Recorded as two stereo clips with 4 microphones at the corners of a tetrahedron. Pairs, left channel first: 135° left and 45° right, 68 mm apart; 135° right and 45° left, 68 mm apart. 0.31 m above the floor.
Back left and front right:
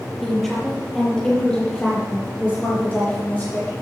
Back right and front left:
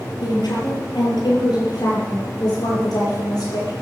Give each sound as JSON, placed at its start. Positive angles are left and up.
{"t": 0.2, "sound": "a woman speaking", "azimuth_deg": -140, "distance_m": 6.0}